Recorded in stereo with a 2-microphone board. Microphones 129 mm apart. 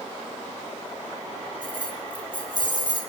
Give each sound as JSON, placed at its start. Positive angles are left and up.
{"t": 1.6, "sound": "keys jangling", "side_deg": 35, "distance_m": 1.5}